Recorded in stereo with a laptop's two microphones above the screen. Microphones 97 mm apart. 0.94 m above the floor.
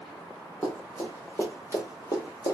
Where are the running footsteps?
10° left (ahead or behind), 1.4 m; by 2.5 s 45° left (ahead or behind), 1.3 m.